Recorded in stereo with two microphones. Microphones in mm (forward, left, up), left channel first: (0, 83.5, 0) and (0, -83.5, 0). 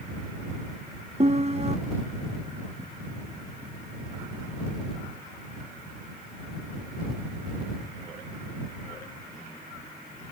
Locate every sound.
1.2 s a piano: 40° right (ahead or behind)